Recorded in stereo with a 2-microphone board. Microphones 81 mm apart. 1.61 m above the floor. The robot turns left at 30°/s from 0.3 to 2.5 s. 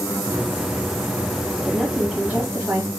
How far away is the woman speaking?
About 1.5 m.